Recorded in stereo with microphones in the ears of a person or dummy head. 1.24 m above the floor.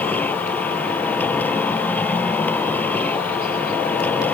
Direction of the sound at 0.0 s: 10° left (ahead or behind).